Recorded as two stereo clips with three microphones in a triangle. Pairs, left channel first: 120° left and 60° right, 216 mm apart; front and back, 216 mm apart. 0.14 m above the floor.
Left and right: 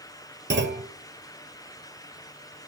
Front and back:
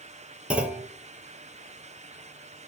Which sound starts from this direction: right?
A clunk, at 0.5 s.